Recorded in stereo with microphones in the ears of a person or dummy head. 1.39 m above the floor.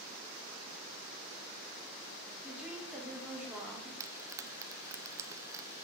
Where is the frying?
15° right (ahead or behind), 0.6 m.